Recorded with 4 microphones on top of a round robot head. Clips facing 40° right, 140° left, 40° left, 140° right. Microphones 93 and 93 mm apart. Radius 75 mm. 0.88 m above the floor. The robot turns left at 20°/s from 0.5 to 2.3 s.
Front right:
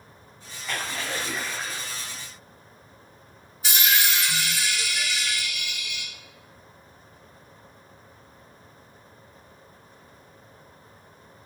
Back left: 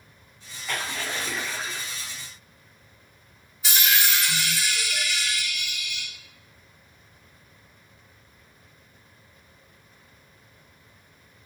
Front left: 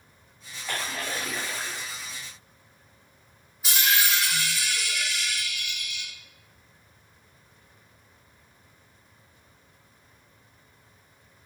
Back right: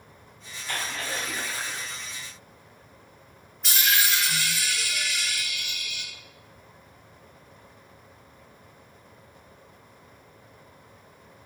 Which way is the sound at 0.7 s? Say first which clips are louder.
Even, even; 50° left.